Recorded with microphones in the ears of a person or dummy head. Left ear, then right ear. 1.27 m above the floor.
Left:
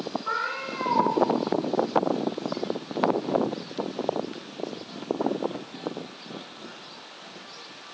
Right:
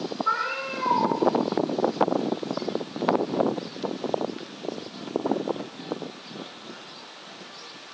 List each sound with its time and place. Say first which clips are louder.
0.2 s a cat meowing: right 4 dB; 15° right (ahead or behind), 4.5 m